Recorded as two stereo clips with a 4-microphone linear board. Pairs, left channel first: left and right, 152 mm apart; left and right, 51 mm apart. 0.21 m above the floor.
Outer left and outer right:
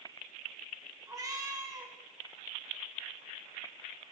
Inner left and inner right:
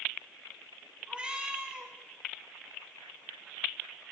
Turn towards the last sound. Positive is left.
turn(degrees=-20)  # may be behind; listen again after turning